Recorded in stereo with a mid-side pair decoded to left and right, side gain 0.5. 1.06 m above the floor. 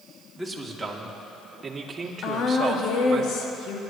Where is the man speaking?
5° right, 2.5 m; by 3.2 s 45° right, 2.5 m.